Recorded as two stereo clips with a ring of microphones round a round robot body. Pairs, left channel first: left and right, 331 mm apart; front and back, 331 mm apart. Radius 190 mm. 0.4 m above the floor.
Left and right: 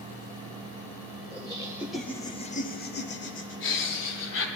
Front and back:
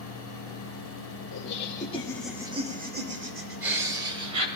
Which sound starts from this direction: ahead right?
Laughter, at 1.3 s.